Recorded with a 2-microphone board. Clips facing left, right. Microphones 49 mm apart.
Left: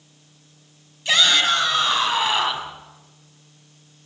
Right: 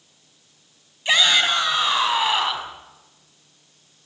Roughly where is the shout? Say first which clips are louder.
Even; right.